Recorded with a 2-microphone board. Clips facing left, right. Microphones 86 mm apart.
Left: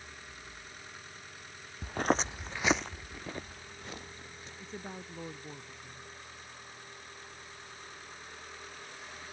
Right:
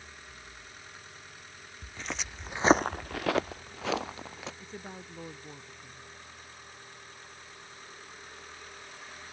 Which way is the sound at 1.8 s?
55° left (ahead or behind).